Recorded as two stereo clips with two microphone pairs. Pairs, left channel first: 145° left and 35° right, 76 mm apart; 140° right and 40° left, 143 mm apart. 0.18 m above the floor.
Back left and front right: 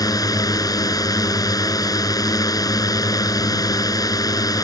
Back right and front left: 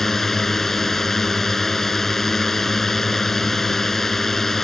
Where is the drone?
135° left.